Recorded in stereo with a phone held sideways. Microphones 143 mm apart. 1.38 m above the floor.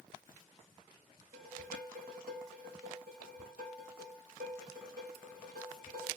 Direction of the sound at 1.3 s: 75° right (ahead or behind).